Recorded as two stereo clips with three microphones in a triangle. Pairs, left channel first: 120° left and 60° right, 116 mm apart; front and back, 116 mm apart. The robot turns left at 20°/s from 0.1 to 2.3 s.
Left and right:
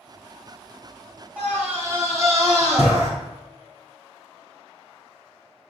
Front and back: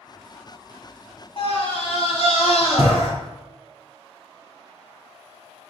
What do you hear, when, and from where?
1.4 s a scream: 15° left, 3 m; by 3.1 s straight ahead, 3 m